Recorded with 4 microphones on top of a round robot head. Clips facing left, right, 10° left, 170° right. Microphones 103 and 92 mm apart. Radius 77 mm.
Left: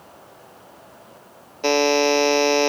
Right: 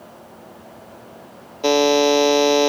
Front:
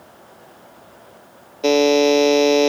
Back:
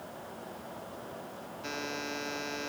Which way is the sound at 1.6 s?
10° right.